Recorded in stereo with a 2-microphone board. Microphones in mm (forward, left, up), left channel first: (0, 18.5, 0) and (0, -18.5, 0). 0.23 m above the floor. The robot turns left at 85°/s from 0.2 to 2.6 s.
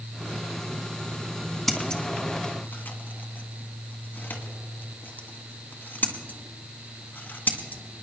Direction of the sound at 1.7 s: 5° left (ahead or behind).